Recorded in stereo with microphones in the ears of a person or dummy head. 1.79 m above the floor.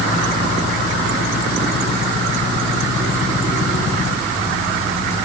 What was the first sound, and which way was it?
Only background noise.